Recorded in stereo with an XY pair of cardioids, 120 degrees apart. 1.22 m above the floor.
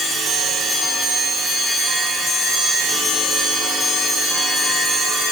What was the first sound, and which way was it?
Only background noise.